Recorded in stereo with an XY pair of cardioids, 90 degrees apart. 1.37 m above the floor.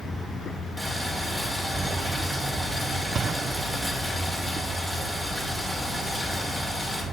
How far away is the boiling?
About 2.5 m.